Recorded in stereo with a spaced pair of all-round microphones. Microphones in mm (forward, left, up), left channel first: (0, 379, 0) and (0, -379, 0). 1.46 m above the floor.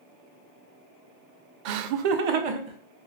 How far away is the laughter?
About 0.5 m.